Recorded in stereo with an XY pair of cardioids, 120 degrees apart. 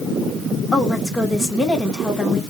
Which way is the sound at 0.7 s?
20° left.